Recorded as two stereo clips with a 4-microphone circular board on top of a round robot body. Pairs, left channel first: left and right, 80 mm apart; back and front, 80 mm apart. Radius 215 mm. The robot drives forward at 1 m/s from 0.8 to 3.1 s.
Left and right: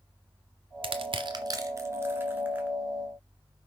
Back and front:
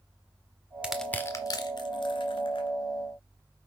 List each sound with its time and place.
0.8 s crushing: 80° right, 0.6 m; by 2.7 s 160° right, 1.8 m